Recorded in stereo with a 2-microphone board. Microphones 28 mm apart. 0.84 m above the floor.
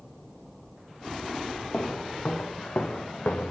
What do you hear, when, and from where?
1.7 s footsteps: 50° left (ahead or behind), 5.5 m; by 3.5 s 60° left (ahead or behind), 4.5 m